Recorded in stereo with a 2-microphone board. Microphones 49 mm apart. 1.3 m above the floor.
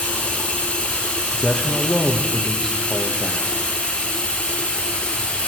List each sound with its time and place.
0.0 s running water: 25° left (ahead or behind), 1.0 m
1.3 s a man speaking: 10° left (ahead or behind), 1.3 m